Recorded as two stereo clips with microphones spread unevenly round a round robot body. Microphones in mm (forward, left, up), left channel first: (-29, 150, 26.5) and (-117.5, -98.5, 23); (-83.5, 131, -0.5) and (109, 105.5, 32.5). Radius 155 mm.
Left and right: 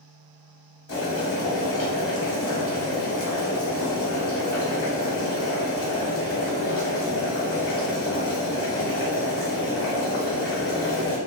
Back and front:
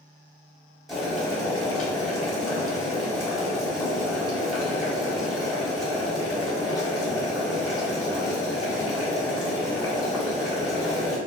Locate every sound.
0.9 s boiling: 90° left, 1.4 m